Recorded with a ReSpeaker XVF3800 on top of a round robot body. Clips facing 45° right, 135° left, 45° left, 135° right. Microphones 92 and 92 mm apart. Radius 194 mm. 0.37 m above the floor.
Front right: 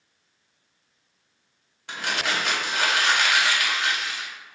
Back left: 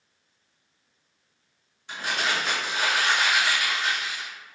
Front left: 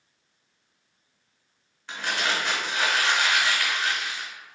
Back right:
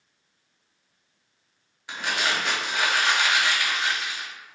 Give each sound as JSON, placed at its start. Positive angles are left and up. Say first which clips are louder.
{"t": 1.9, "sound": "crumpling", "louder": "even, back right 1 dB", "azimuth_deg": -55, "distance_m": 1.5}